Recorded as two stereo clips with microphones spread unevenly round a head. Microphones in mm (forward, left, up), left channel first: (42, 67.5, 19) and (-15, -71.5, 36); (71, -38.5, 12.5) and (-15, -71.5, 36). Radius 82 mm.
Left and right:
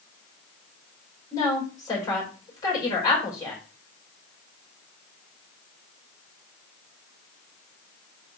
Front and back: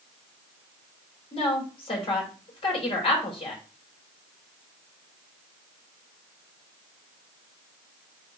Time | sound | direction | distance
1.3 | a woman speaking | straight ahead | 4 m